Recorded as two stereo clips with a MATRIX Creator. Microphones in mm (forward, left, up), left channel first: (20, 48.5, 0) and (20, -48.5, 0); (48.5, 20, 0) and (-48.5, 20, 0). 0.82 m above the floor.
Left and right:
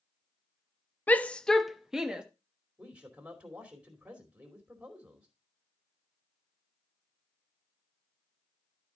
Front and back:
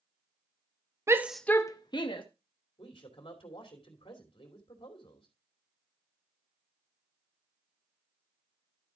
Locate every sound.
1.1 s a shout: 150° left, 0.6 m; by 2.2 s 10° right, 1.1 m
2.8 s a man speaking: 15° right, 2.5 m